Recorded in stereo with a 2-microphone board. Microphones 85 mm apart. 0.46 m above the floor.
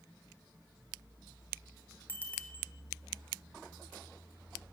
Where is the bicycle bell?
25° left (ahead or behind), 2 m.